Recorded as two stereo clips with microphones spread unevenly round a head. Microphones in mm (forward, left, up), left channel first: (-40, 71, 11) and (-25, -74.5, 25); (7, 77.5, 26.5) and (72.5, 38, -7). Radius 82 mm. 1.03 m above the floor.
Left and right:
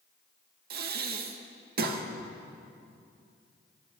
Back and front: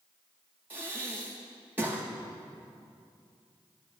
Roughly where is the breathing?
Right.